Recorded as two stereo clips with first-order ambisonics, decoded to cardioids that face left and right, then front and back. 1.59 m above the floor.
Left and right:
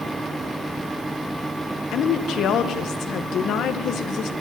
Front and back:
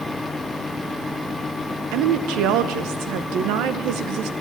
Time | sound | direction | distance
1.9 | a woman speaking | 145° left | 1.0 m